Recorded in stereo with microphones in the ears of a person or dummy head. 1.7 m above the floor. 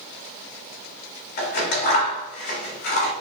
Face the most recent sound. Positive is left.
turn(degrees=55)  # may be behind; listen again after turning